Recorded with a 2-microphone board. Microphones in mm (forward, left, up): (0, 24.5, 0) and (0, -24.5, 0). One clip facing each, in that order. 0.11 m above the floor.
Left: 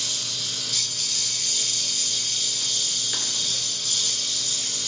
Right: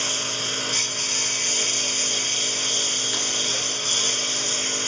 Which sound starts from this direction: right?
A lawn mower, at 0.0 s.